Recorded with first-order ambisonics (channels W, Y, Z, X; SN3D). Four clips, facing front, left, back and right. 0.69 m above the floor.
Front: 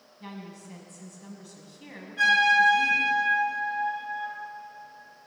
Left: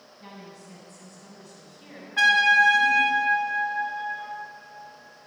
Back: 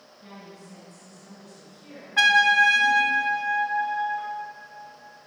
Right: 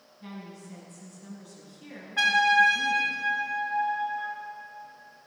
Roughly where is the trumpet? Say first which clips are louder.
Left 3 dB, back 3 dB; behind.